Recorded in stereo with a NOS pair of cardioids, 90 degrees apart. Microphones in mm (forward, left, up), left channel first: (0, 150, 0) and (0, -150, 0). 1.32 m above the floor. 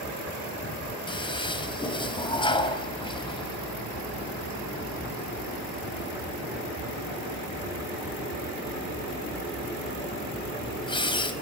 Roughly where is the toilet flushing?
Ahead.